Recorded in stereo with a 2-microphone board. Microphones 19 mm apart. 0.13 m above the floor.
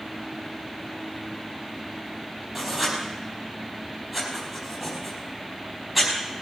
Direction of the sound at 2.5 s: 10° right (ahead or behind).